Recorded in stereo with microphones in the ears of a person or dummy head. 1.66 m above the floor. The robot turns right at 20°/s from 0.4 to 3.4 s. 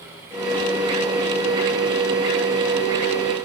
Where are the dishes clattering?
I don't hear dishes clattering.